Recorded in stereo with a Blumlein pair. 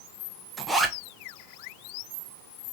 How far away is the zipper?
About 0.5 m.